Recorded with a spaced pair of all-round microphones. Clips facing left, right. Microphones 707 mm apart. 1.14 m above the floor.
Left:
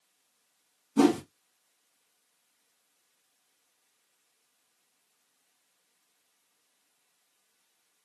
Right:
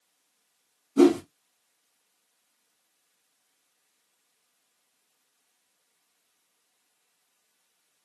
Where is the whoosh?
30° left (ahead or behind), 0.8 m.